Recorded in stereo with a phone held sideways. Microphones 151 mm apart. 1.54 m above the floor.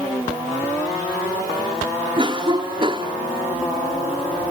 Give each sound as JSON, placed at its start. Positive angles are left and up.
{"t": 2.2, "sound": "a cough", "side_deg": -35}